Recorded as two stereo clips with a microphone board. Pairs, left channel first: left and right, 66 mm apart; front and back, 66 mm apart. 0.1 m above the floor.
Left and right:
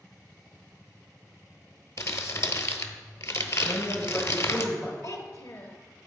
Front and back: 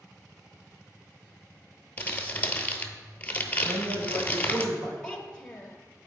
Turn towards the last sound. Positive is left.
turn(degrees=70)